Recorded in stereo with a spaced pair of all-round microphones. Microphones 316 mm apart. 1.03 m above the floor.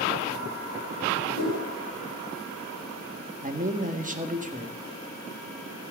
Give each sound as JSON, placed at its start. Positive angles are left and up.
{"t": 1.4, "sound": "a whoosh", "side_deg": 80, "distance_m": 3.5}
{"t": 3.4, "sound": "a man speaking", "side_deg": -25, "distance_m": 1.3}